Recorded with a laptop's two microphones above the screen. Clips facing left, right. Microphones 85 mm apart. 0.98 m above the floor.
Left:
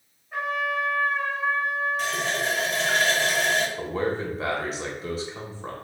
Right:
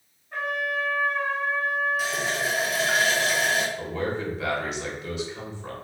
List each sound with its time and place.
0.3 s a trumpet: 5° left (ahead or behind), 1.7 m
2.0 s a running tap: 5° right (ahead or behind), 0.5 m
3.8 s a man speaking: 35° left (ahead or behind), 0.9 m